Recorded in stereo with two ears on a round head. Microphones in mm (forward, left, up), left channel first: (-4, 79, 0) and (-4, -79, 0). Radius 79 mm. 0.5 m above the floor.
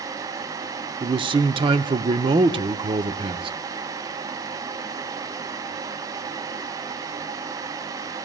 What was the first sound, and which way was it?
A man speaking, 30° right (ahead or behind).